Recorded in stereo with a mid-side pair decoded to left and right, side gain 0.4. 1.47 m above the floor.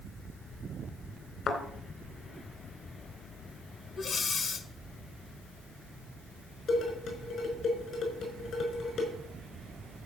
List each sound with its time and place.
1.5 s a thud: 65° left, 3.5 m
4.0 s breathing: 60° left, 1.3 m
6.7 s dishes clattering: 70° left, 5 m